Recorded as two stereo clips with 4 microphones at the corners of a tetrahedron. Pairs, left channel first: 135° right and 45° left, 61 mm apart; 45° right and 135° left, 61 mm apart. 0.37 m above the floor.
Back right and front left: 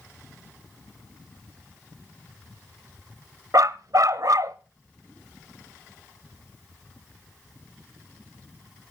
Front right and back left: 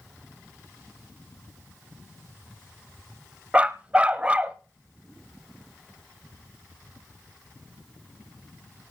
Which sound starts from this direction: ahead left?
A dog barking, at 3.5 s.